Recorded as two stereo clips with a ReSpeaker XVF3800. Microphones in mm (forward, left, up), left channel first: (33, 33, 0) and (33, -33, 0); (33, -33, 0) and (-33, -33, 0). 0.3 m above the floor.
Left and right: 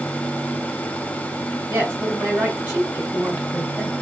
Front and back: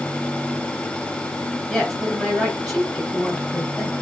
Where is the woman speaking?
60° right, 1.5 m.